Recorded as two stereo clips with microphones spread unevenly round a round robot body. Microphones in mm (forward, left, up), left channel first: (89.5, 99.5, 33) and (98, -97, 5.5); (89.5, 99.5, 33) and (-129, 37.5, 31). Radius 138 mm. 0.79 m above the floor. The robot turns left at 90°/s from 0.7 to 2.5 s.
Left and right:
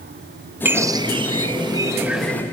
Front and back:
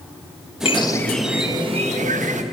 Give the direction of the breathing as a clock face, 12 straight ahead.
No breathing in this recording.